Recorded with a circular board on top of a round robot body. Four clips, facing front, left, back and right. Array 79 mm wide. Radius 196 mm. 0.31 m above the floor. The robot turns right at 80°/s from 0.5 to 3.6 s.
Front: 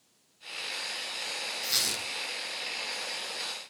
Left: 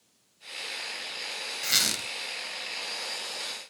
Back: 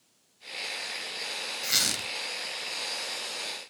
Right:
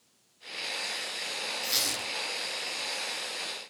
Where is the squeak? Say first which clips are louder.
Left 2 dB, back 6 dB; 110° left, 0.6 m; by 2.1 s 145° left, 0.6 m.